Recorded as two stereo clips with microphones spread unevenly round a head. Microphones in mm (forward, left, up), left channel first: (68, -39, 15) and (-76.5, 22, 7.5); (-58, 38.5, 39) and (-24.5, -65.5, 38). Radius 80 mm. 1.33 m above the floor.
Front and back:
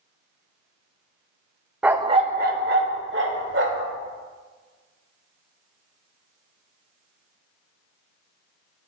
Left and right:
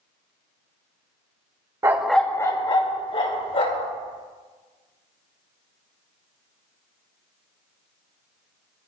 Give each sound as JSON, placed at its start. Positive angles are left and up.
{"t": 1.8, "sound": "a dog barking", "azimuth_deg": -120, "distance_m": 0.8}